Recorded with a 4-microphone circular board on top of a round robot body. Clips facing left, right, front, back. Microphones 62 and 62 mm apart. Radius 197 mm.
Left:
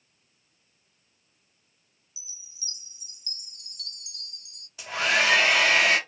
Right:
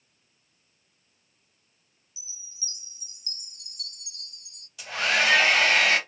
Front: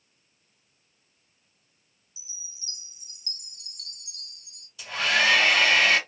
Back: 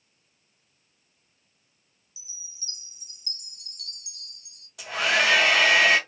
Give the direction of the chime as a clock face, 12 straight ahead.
1 o'clock.